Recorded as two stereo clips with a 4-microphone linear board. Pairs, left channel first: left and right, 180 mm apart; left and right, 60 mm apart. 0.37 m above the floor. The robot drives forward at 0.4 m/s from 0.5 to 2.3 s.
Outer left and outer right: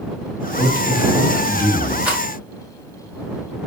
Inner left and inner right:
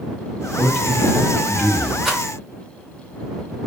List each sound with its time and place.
0.6 s a man speaking: 15° right (ahead or behind), 1.6 m
2.0 s a rattle: 5° right (ahead or behind), 1.1 m